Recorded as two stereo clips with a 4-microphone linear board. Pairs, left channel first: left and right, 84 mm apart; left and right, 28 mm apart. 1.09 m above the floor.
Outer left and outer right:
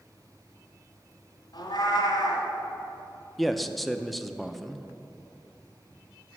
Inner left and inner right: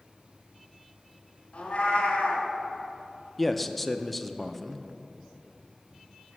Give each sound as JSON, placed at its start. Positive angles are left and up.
{"t": 1.5, "sound": "a cat meowing", "side_deg": 50, "distance_m": 1.7}
{"t": 3.4, "sound": "a man speaking", "side_deg": 0, "distance_m": 0.5}